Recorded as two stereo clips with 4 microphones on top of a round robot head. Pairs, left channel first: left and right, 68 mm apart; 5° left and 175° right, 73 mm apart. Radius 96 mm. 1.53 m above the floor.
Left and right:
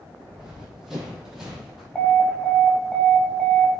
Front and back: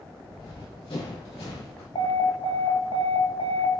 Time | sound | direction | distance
0.3 | running footsteps | 5° right | 4.5 m
1.9 | an alarm | 15° left | 2 m